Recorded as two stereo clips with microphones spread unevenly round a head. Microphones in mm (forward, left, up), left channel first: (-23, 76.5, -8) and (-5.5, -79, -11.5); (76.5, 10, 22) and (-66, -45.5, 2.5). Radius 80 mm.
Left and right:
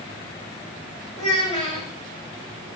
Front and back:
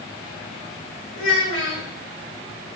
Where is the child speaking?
35° left, 4 m.